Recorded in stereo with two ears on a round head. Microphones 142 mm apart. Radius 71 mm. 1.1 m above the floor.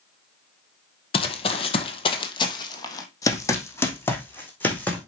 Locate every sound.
1.1 s running footsteps: 35° left (ahead or behind), 1.4 m; by 5.0 s 10° left (ahead or behind), 3 m